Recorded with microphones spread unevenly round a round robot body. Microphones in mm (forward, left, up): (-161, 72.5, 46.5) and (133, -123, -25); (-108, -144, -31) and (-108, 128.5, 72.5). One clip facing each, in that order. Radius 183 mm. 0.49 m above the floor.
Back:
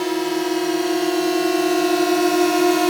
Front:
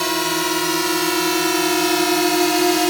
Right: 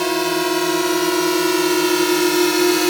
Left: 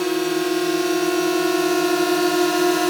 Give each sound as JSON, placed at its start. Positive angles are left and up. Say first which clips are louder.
{"t": 0.0, "sound": "a drone", "louder": "back 3 dB, even", "azimuth_deg": -20}